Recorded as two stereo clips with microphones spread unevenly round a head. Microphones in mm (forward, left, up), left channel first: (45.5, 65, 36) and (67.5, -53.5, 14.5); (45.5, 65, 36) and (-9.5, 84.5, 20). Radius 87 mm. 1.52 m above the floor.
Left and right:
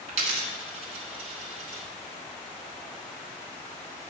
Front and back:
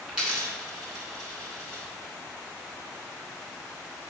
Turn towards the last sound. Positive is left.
turn(degrees=-100)